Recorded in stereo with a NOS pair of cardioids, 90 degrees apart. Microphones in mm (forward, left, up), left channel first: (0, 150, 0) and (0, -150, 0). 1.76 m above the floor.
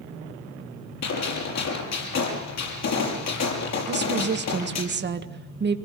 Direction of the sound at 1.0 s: 65° left.